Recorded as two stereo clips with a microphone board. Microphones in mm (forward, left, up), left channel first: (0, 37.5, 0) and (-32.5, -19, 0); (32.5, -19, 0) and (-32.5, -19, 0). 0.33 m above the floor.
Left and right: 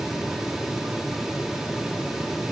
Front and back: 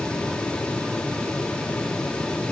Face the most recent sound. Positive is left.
No sound to turn to.